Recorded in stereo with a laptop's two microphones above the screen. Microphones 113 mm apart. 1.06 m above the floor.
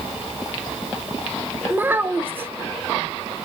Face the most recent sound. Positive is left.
turn(degrees=-15)  # may be behind; listen again after turning